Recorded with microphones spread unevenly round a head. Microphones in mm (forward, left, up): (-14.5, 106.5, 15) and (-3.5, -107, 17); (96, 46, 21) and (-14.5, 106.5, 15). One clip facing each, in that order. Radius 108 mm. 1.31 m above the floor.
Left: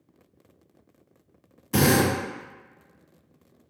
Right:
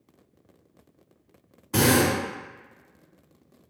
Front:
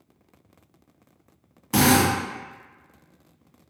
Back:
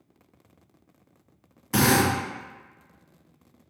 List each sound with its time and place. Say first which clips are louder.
1.7 s a drill: even, front 2 dB; 40° left, 1.4 m